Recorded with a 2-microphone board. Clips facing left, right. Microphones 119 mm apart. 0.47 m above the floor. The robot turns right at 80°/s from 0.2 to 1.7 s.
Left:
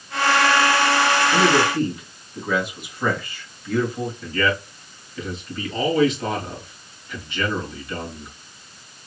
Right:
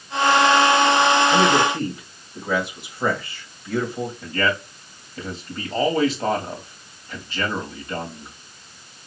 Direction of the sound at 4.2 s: 40° right (ahead or behind).